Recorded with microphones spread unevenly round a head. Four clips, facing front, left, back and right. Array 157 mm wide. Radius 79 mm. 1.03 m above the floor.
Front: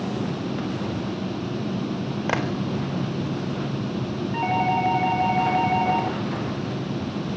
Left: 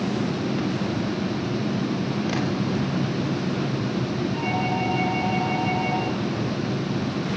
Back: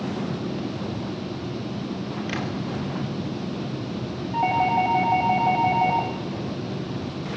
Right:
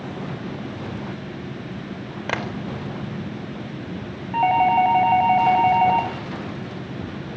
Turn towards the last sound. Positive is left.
turn(degrees=-110)